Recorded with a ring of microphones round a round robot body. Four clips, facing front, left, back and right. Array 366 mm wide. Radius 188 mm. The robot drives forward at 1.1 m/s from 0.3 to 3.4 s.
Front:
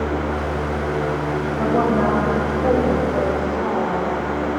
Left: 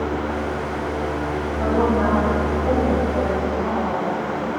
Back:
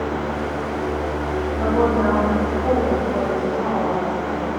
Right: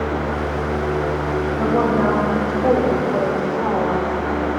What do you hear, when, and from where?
1.6 s a woman speaking: 35° right, 3 m; by 4.4 s 80° right, 1.7 m